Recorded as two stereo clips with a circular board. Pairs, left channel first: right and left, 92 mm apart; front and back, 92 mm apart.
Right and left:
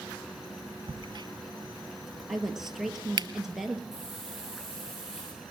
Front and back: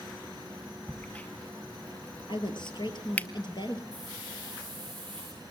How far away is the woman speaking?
About 2.5 m.